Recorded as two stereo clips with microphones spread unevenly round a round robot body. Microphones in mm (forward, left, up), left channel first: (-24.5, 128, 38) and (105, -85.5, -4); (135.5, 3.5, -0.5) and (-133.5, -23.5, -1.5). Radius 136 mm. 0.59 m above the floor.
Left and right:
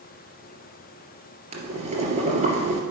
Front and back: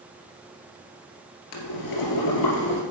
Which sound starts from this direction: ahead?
Boiling, at 1.5 s.